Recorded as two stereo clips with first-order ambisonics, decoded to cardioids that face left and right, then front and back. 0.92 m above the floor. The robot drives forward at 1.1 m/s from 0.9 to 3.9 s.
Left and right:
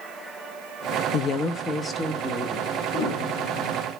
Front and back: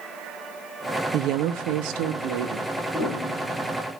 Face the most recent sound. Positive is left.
turn(degrees=120)